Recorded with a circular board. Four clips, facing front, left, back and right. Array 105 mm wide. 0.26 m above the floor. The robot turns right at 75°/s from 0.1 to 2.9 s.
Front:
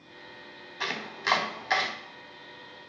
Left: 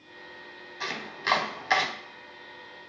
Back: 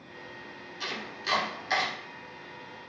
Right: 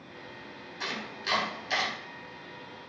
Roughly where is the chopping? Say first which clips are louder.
Left 3 dB, front 4 dB; ahead.